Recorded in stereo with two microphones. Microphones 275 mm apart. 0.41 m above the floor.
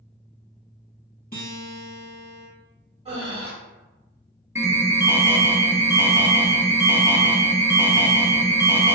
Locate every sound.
1.3 s a guitar: 35° left (ahead or behind), 1.5 m
3.0 s breathing: 20° right (ahead or behind), 1.3 m
4.5 s an alarm: 10° right (ahead or behind), 0.6 m